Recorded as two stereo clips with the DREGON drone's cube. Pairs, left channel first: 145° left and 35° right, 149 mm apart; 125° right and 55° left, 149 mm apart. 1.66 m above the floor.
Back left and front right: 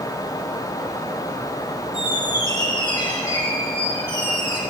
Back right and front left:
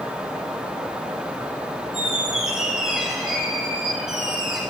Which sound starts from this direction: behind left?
A squeak, at 1.9 s.